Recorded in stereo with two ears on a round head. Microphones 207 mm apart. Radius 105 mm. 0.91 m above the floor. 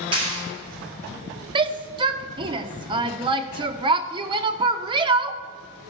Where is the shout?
20° right (ahead or behind), 0.6 m.